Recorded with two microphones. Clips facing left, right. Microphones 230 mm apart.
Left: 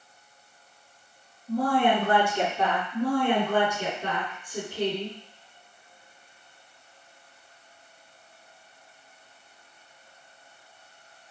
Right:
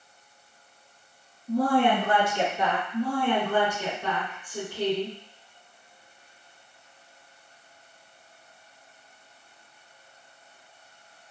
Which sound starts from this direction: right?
A woman speaking, at 1.5 s.